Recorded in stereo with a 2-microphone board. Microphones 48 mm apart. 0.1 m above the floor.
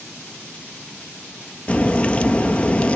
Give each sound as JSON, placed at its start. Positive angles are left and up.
{"t": 1.7, "sound": "a crack", "side_deg": 25, "distance_m": 0.7}